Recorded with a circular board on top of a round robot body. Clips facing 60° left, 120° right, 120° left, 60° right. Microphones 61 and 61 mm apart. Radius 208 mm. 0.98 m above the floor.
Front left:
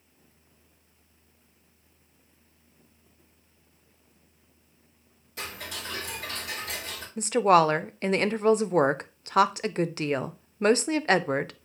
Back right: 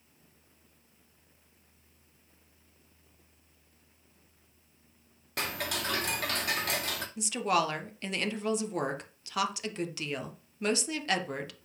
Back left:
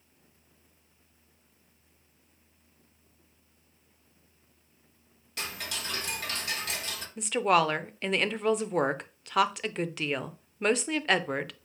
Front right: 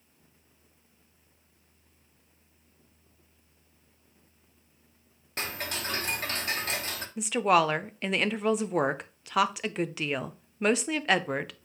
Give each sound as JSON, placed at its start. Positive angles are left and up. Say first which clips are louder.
{"t": 5.4, "sound": "ticking", "louder": "back right 4 dB, front right 3 dB", "azimuth_deg": -110, "distance_m": 1.2}
{"t": 7.2, "sound": "a woman speaking", "louder": "front left 10 dB, front right 1 dB", "azimuth_deg": 25, "distance_m": 0.6}